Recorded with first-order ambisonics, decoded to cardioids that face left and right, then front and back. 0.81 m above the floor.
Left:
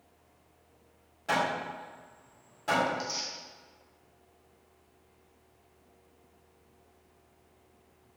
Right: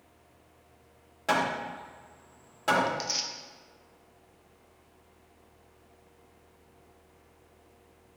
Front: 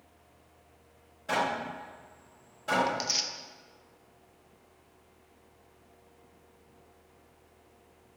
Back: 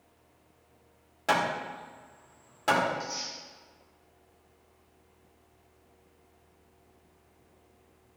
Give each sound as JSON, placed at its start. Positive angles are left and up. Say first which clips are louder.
{"t": 1.3, "sound": "hammering", "louder": "right 2 dB, back 2 dB", "azimuth_deg": -150, "distance_m": 2.5}
{"t": 2.9, "sound": "tearing paper", "louder": "right 2 dB, front 3 dB", "azimuth_deg": -25, "distance_m": 0.5}